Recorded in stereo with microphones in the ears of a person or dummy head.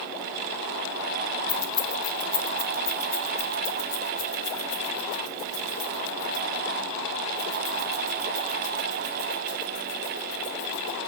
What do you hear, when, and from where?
1.5 s keys jangling: 15° left (ahead or behind), 1.0 m; by 11.0 s 45° left (ahead or behind), 7.5 m